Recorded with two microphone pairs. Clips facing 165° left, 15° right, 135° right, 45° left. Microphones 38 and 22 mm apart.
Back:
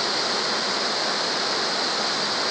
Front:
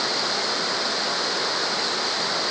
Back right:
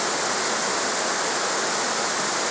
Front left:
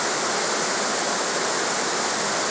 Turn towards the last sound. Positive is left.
No sound to turn to.